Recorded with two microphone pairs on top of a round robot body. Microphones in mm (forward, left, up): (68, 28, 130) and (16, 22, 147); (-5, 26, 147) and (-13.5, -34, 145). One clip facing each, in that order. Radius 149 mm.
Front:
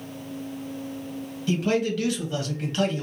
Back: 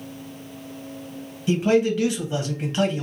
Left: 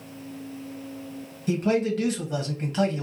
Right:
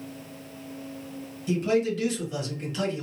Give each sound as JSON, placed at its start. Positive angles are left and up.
{"t": 1.5, "sound": "a man speaking", "azimuth_deg": 110, "distance_m": 1.4}